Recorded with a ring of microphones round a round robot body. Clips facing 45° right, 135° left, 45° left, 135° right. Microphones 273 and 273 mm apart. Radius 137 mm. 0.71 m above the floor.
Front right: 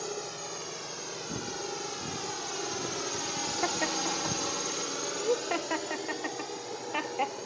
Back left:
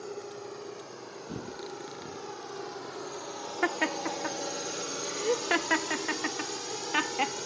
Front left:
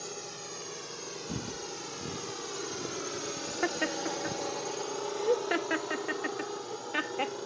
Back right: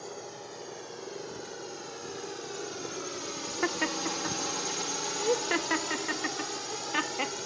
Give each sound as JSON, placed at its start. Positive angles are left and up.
{"t": 0.0, "sound": "a drone", "azimuth_deg": -20}
{"t": 1.3, "sound": "footsteps", "azimuth_deg": 45}
{"t": 3.6, "sound": "laughter", "azimuth_deg": 150}